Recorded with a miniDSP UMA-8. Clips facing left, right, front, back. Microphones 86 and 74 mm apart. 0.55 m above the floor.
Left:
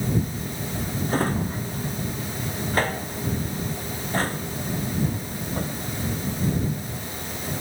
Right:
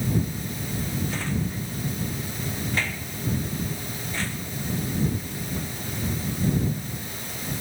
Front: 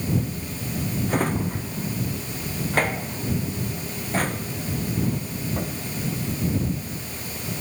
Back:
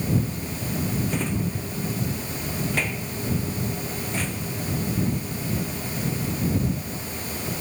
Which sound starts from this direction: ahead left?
A drawer, at 1.1 s.